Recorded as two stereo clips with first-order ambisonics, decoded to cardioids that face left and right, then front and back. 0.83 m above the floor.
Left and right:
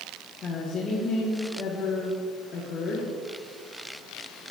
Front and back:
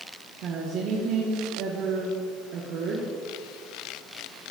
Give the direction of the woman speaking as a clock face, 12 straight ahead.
7 o'clock.